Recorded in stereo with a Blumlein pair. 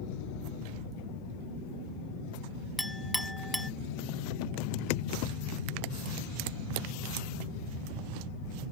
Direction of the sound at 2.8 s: Straight ahead.